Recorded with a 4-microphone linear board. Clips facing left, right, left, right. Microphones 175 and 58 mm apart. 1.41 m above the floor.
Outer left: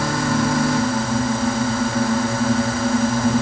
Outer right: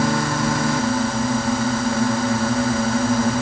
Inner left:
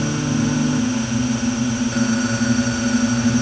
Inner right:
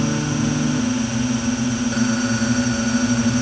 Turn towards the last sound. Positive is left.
No sound to turn to.